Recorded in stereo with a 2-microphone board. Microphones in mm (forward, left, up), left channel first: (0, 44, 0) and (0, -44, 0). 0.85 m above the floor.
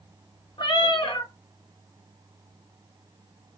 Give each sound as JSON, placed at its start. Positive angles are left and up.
{"t": 0.6, "sound": "a cat meowing", "side_deg": 75, "distance_m": 0.8}